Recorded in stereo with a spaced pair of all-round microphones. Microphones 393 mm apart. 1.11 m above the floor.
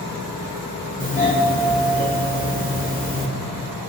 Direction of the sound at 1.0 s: 20° left (ahead or behind).